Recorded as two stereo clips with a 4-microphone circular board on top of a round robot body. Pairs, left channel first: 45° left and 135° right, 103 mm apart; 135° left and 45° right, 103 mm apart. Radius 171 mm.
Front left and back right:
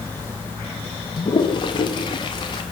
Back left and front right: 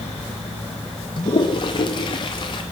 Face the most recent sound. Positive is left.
turn(degrees=90)